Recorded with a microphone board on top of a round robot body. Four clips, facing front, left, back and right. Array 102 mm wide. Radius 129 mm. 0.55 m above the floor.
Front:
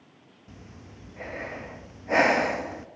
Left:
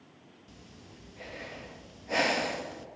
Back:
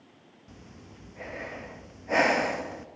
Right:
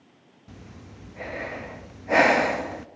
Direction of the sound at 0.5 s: 75° right.